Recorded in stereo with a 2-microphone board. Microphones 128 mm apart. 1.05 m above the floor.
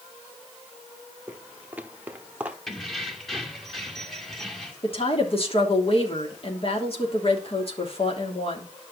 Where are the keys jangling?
Centre (ahead or behind), 2 m.